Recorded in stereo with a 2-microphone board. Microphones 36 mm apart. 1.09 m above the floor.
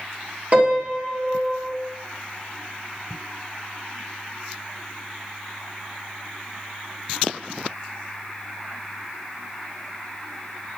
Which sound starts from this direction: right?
A piano, at 0.5 s.